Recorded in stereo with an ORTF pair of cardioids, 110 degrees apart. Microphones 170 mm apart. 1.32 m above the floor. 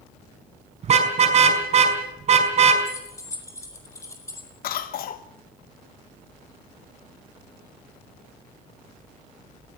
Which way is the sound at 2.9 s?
20° left.